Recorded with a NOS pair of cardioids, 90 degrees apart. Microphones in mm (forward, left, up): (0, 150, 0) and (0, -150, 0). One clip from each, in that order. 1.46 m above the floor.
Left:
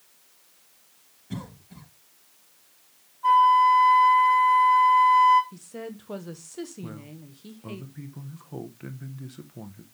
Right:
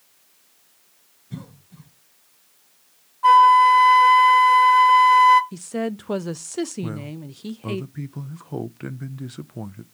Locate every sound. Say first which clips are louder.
1.3 s a cough: left 2 dB; 65° left, 5 m
3.2 s a flute: right 5 dB; 55° right, 0.8 m
5.5 s a woman speaking: right 11 dB; 50° right, 0.8 m
6.8 s a man speaking: right 9 dB; 40° right, 0.8 m